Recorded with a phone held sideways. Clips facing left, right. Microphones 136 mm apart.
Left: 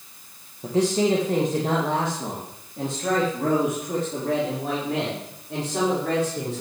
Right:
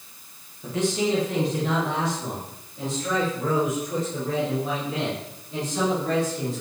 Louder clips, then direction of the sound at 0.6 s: Left 4 dB; 30° left (ahead or behind).